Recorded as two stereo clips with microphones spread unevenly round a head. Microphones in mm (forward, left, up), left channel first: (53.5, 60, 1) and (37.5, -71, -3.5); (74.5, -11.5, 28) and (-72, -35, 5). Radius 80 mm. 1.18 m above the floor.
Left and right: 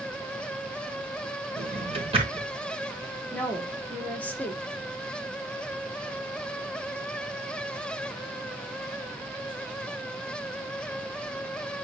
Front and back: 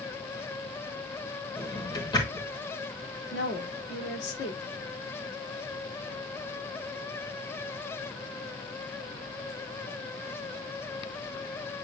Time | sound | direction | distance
1.6 | a drawer | 50° right | 3.5 m
3.3 | a woman speaking | 5° left | 2 m